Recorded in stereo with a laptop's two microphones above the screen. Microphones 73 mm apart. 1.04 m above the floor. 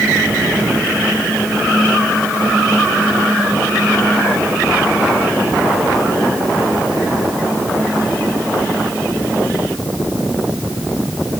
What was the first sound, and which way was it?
Only background noise.